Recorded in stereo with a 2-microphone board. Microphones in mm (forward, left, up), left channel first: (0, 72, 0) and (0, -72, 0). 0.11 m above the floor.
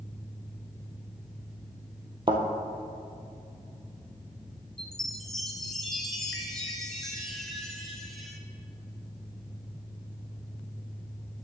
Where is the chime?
5° left (ahead or behind), 1.0 m.